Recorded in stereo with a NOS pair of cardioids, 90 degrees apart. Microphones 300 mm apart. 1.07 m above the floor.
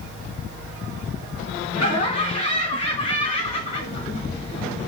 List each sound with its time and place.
1.7 s laughter: 55° left, 1.3 m